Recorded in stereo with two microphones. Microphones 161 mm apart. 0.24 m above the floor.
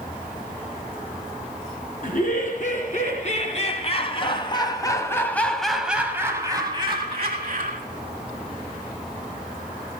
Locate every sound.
2.0 s laughter: 55° left (ahead or behind), 3.5 m; by 7.8 s 50° right (ahead or behind), 2 m